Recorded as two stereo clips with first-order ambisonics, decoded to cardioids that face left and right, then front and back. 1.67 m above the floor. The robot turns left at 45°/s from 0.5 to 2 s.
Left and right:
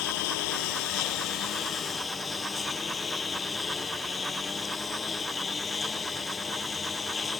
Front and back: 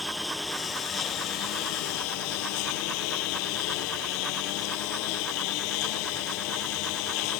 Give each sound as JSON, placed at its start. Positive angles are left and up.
{"t": 0.0, "sound": "a lawn mower", "azimuth_deg": 80}